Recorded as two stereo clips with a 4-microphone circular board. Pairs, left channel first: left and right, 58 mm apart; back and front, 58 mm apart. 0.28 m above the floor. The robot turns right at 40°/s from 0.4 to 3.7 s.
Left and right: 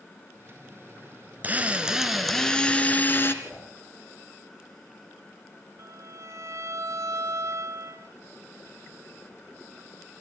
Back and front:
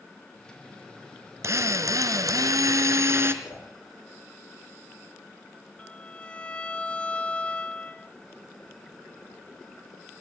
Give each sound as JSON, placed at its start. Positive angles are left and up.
{"t": 1.4, "sound": "a drill", "azimuth_deg": -30, "distance_m": 2.0}
{"t": 3.4, "sound": "a whoosh", "azimuth_deg": 140, "distance_m": 4.5}
{"t": 5.8, "sound": "a violin", "azimuth_deg": -110, "distance_m": 1.1}